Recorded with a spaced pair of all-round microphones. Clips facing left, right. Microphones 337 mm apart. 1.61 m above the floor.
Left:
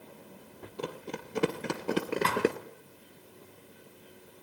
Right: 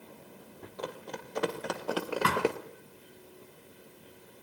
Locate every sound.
0.8 s running footsteps: 40° left (ahead or behind), 2.5 m; by 2.6 s 20° left (ahead or behind), 1.7 m
2.2 s a thud: 20° right (ahead or behind), 3.5 m